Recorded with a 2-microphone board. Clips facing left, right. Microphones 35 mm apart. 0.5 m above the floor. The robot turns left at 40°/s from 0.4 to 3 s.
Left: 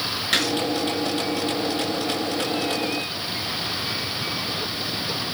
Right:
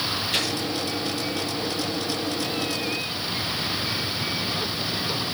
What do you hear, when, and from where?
0.3 s a gunshot: 75° left (ahead or behind), 4.5 m; by 0.5 s 70° left (ahead or behind), 4.5 m